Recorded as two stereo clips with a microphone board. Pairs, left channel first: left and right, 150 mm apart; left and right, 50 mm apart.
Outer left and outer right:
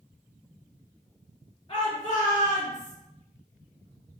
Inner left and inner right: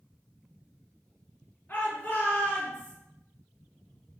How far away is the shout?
About 2 m.